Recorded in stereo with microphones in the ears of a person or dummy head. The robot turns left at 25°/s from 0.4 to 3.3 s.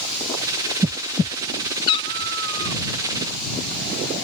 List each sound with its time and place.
1.9 s a cat meowing: 20° left (ahead or behind); by 2.8 s 15° left (ahead or behind)